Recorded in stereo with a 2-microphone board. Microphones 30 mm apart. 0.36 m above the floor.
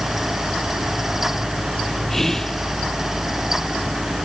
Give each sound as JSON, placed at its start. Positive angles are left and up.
{"t": 2.1, "sound": "whispering", "side_deg": 15}